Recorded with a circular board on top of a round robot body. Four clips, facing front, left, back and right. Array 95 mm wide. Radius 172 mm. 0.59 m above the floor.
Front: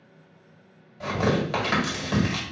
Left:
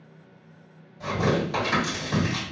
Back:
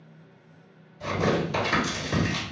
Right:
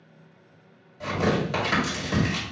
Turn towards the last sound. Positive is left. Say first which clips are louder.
# even, front 1 dB
turn(degrees=-20)